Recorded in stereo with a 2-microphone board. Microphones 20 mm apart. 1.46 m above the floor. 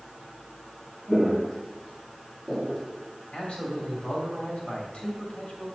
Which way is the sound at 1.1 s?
25° left (ahead or behind).